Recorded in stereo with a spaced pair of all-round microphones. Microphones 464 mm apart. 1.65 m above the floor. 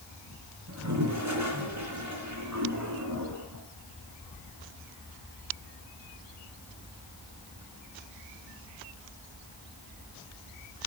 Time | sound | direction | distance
0.7 | a toilet flushing | 35° right (ahead or behind) | 3 m